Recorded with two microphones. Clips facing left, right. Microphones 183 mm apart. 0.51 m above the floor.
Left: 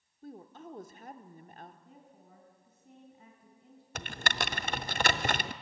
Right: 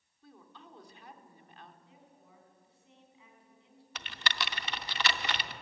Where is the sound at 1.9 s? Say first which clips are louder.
Left 3 dB; 45° left (ahead or behind), 4 m.